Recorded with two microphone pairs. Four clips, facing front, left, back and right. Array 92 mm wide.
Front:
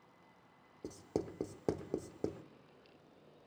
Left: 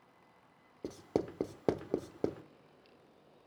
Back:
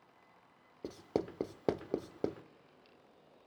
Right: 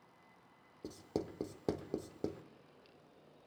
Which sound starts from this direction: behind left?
Writing, at 0.8 s.